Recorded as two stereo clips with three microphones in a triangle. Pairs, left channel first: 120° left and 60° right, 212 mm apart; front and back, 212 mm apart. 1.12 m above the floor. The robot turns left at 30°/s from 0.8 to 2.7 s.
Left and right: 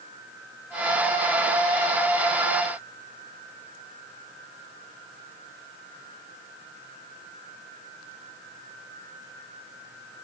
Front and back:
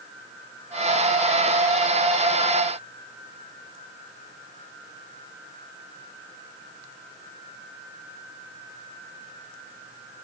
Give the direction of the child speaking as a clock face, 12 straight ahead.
No child speaking in this recording.